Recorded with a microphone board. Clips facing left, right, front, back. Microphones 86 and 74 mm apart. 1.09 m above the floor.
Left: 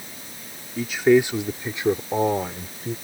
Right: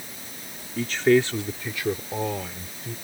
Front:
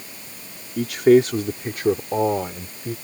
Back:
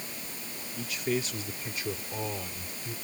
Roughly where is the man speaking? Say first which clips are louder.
Left 2 dB, front 17 dB; ahead.